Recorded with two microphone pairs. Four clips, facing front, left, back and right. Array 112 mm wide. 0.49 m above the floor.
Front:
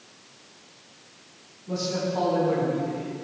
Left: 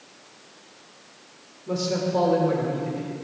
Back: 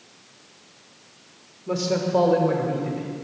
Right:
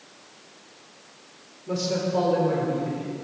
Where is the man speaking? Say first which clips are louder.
Left 1 dB, back 5 dB; straight behind, 1.7 m; by 3.1 s 170° left, 3 m.